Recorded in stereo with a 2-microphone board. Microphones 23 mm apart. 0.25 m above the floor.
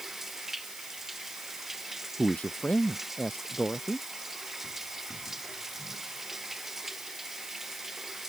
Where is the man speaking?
80° left.